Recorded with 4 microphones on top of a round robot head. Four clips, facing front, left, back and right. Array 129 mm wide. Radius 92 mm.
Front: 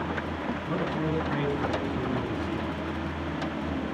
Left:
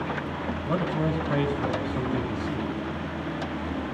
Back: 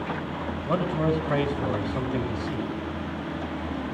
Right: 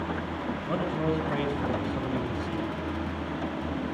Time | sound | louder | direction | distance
0.7 | a man speaking | left 2 dB, back 6 dB | 175° left | 5 m